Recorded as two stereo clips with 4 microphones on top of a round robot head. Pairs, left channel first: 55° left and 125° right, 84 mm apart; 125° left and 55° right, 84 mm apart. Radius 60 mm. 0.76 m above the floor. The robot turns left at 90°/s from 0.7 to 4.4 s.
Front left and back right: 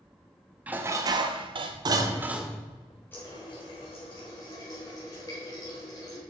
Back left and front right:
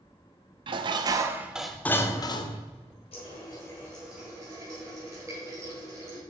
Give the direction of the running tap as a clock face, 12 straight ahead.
8 o'clock.